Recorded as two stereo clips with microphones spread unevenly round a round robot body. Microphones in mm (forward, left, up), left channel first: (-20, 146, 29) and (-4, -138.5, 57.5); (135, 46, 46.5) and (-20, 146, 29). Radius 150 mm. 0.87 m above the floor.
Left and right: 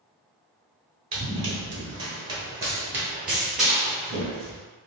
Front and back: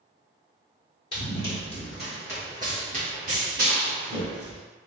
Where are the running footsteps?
55° right, 0.9 m; by 4.6 s 175° right, 1.6 m.